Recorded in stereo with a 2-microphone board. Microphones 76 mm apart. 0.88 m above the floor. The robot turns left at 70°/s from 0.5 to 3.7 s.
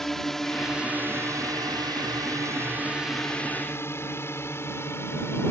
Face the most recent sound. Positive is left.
turn(degrees=35)  # may be behind; listen again after turning